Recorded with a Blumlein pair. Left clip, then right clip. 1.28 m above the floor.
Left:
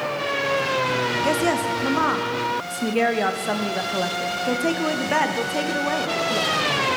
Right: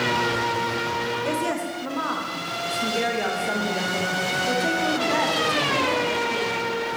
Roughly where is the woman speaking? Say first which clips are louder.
Left 5 dB; ahead.